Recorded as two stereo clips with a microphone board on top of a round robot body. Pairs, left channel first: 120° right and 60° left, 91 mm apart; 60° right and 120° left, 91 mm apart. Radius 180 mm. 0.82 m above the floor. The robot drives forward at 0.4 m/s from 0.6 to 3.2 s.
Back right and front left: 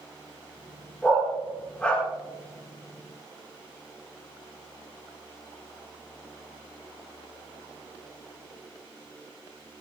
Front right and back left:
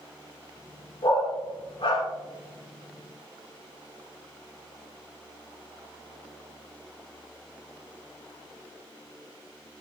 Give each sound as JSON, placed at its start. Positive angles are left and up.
{"t": 1.0, "sound": "a dog barking", "azimuth_deg": -40, "distance_m": 7.0}